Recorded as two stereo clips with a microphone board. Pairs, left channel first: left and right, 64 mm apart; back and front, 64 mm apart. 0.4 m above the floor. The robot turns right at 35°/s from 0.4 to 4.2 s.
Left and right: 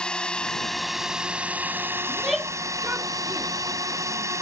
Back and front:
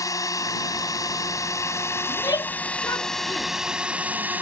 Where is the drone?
165° left; by 4.4 s 60° right.